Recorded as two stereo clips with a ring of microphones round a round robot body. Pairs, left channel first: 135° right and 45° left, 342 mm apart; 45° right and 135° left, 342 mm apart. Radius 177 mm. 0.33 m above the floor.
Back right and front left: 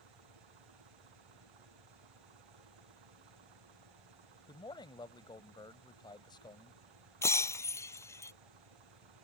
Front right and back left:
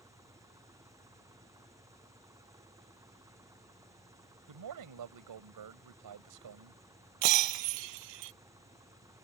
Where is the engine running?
55° left.